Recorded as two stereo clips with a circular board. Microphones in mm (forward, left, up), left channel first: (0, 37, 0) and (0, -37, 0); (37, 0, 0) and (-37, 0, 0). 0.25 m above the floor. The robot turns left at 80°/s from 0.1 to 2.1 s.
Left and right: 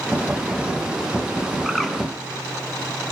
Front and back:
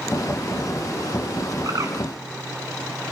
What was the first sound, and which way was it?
A bird, 175° right.